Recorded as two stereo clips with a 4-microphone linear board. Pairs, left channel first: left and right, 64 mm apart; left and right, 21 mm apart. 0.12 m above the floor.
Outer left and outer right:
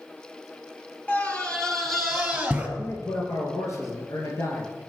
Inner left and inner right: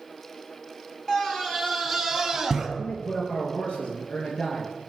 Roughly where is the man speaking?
Left.